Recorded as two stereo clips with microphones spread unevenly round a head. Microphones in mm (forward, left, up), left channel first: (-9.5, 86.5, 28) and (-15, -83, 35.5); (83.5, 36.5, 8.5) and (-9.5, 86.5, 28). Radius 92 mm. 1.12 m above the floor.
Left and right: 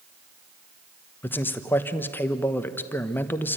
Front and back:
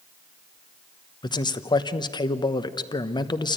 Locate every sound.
1.2 s a man speaking: 10° left, 1.1 m